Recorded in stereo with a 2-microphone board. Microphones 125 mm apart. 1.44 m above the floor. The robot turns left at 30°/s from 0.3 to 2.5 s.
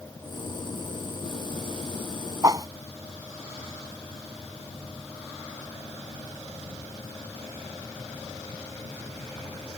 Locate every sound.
2.4 s a whoosh: 30° right (ahead or behind)